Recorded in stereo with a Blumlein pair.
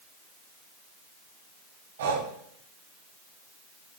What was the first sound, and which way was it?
Breathing, 55° right.